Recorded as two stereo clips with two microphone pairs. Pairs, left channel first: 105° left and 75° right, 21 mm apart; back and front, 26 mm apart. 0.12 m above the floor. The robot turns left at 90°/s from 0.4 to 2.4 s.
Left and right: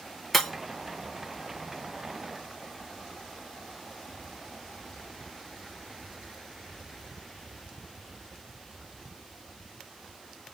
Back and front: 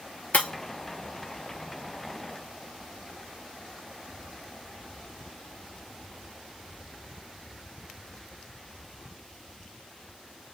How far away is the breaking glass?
About 0.7 m.